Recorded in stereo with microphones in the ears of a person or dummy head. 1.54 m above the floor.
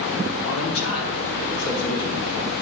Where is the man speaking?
70° left (ahead or behind), 1.4 m; by 2.3 s 85° left, 2.5 m.